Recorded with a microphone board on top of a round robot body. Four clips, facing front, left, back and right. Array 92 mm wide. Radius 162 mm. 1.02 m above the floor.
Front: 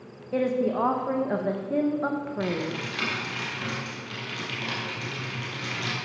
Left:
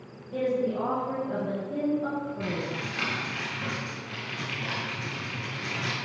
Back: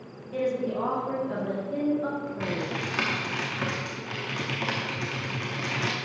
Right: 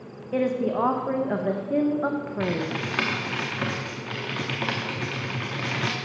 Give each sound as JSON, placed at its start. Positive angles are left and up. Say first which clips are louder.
{"t": 0.3, "sound": "a woman speaking", "louder": "right 3 dB, front 3 dB", "azimuth_deg": -55, "distance_m": 1.0}
{"t": 2.4, "sound": "typing on a keyboard", "louder": "right 5 dB, front 1 dB", "azimuth_deg": -120, "distance_m": 0.8}